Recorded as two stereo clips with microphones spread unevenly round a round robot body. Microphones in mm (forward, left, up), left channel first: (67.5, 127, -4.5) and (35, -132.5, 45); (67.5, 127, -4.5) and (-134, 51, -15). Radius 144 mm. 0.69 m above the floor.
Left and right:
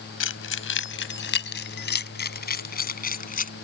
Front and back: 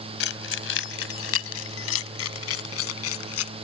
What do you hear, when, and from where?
0.2 s keys jangling: 45° left; by 3.5 s 25° left